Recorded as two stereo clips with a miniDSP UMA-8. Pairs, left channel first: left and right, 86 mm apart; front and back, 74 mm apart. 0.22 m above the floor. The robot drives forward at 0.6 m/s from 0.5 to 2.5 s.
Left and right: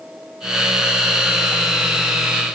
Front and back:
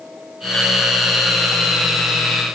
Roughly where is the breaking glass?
No breaking glass in this recording.